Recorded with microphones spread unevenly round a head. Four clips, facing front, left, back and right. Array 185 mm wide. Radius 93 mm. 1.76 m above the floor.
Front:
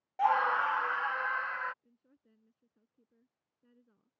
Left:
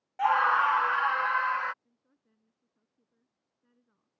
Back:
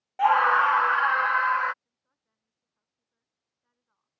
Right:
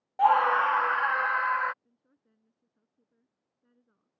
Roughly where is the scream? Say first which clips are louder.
Right 2 dB, back 8 dB; right.